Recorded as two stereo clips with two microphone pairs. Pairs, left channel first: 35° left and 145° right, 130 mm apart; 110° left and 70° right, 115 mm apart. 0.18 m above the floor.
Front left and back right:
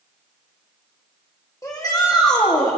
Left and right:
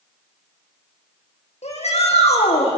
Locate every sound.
1.6 s a shout: 95° left, 8.5 m; by 2.8 s 90° left, 9 m